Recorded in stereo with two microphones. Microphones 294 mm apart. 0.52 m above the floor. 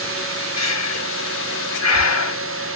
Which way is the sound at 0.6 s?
60° left (ahead or behind).